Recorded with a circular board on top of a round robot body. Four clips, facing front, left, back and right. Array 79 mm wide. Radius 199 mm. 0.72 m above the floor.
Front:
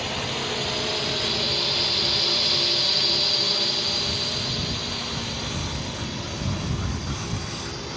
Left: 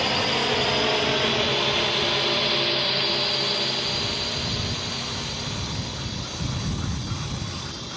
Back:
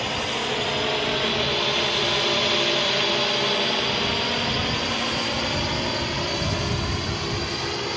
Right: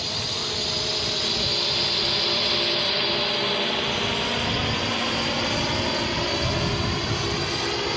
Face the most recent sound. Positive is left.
turn(degrees=-120)